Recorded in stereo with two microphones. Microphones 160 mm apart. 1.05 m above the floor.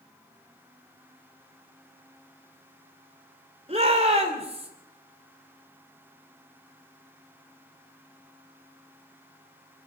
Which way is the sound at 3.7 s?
40° right (ahead or behind).